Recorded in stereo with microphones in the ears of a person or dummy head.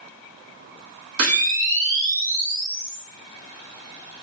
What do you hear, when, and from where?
1.2 s a camera shutter: 20° right (ahead or behind), 1.0 m